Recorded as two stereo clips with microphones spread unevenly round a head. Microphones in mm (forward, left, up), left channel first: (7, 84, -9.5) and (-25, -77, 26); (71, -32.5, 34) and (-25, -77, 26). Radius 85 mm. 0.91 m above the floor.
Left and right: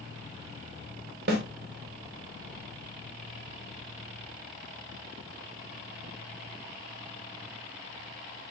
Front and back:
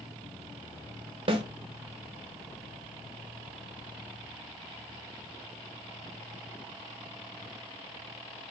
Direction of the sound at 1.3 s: 130° right.